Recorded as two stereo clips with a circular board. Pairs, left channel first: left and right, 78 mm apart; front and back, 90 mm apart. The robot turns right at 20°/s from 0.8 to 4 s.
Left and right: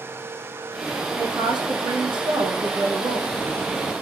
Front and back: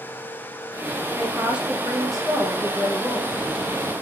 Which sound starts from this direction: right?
A woman speaking, at 1.2 s.